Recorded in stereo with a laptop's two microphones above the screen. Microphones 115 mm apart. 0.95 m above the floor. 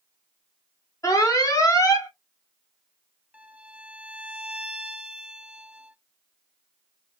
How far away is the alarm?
About 1.0 m.